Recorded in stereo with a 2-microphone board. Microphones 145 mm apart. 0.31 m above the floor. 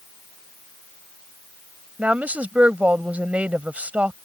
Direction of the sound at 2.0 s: 10° right (ahead or behind).